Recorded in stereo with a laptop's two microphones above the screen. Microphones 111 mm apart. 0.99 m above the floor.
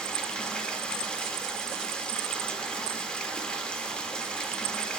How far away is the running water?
About 0.7 m.